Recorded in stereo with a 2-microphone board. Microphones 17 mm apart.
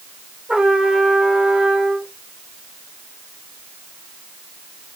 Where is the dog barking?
No dog barking in this recording.